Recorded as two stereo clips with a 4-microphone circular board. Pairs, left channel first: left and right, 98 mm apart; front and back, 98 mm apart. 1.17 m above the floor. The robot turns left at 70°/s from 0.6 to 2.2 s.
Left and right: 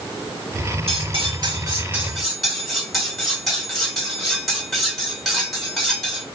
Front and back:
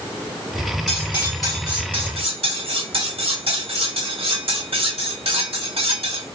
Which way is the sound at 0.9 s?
85° right.